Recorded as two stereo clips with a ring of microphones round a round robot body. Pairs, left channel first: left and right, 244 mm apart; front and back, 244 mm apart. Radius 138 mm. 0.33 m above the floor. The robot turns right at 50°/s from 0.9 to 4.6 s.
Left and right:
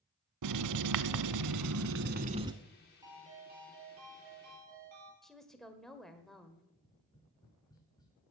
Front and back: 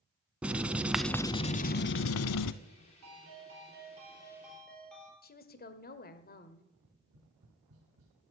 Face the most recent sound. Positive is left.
turn(degrees=165)